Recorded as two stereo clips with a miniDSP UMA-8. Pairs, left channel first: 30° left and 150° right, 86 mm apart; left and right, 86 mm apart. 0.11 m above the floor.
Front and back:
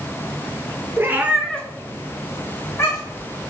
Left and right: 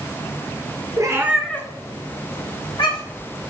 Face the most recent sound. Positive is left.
turn(degrees=85)